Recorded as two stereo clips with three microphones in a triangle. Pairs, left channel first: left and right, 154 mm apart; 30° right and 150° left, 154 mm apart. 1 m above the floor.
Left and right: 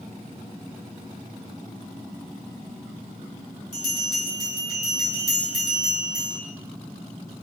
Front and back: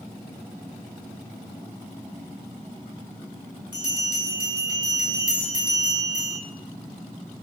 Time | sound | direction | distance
3.7 | a bell | 150° right | 1.3 m